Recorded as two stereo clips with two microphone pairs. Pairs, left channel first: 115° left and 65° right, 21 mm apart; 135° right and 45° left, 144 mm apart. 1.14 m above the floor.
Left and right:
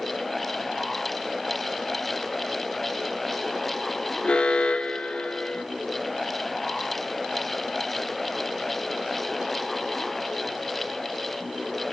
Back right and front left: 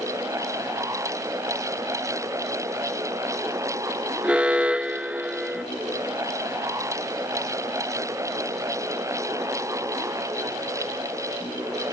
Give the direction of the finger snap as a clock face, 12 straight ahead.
No finger snap in this recording.